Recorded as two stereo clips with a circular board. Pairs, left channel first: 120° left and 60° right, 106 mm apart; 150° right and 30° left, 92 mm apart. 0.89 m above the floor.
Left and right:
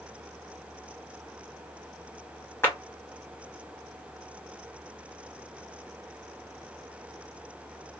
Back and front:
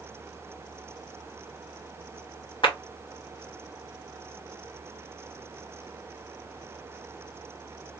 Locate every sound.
2.6 s a clap: 170° right, 1.2 m